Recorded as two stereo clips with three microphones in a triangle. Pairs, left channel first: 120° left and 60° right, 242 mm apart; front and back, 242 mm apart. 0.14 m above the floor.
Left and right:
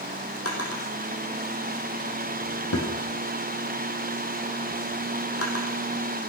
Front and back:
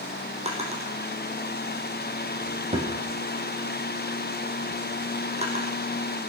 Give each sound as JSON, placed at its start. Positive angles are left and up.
{"t": 0.5, "sound": "a drawer", "azimuth_deg": 115, "distance_m": 3.0}